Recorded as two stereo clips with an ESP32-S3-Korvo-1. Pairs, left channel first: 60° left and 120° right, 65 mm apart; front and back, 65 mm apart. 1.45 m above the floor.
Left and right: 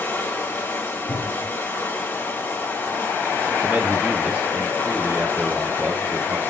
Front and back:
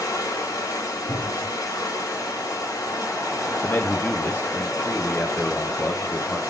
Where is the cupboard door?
90° left, 2.5 m.